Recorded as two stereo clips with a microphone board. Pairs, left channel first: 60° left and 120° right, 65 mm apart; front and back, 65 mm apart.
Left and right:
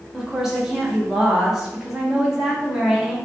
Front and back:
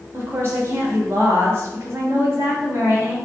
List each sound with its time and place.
0.1 s a woman speaking: 165° left, 1.2 m